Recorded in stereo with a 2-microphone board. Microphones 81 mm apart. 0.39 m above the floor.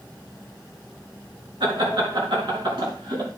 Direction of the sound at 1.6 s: 75° right (ahead or behind).